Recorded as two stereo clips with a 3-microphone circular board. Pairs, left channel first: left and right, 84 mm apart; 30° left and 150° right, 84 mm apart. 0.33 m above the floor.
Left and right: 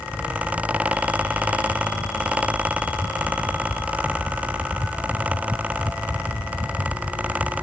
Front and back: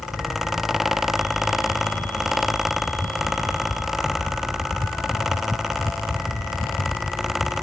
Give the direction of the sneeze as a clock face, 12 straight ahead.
No sneeze in this recording.